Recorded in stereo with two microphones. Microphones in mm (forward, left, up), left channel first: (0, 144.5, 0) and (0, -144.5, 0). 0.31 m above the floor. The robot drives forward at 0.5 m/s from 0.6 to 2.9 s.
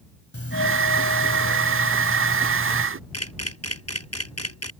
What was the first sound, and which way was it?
A doorbell, 50° left (ahead or behind).